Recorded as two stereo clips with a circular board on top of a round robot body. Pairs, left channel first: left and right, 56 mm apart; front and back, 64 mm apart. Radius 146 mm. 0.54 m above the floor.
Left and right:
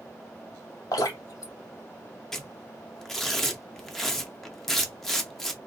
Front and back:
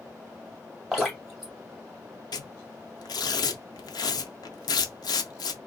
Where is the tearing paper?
5° left, 0.6 m.